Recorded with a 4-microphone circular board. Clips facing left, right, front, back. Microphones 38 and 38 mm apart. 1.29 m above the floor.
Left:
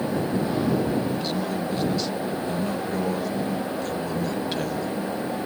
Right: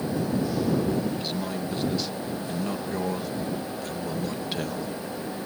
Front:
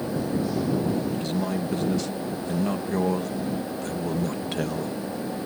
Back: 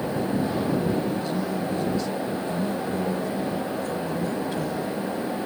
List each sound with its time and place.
1.1 s a man speaking: 5° right